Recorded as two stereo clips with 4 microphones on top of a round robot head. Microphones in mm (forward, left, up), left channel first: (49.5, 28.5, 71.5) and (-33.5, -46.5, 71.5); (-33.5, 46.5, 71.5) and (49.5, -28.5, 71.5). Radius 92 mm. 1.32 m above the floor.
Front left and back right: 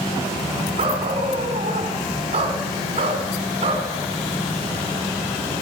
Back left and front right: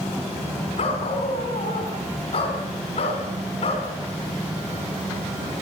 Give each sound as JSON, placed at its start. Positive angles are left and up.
{"t": 0.8, "sound": "a dog barking", "azimuth_deg": 180, "distance_m": 4.0}